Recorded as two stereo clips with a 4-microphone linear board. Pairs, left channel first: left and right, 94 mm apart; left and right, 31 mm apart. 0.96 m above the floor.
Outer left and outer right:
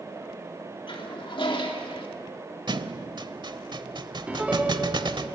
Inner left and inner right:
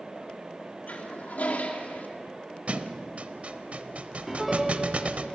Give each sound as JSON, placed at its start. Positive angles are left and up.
{"t": 0.9, "sound": "a toilet flushing", "side_deg": 60, "distance_m": 2.5}
{"t": 2.7, "sound": "a thud", "side_deg": -50, "distance_m": 1.0}
{"t": 4.3, "sound": "a piano", "side_deg": -15, "distance_m": 1.4}